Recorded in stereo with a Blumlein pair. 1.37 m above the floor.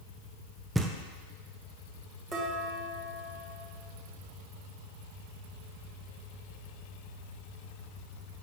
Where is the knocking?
5° right, 0.6 m.